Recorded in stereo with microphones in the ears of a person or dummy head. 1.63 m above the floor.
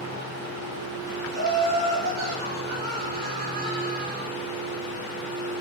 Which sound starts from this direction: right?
Laughter, at 1.3 s.